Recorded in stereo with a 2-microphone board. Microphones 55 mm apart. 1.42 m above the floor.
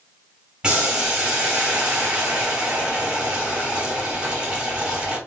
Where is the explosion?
No explosion in this recording.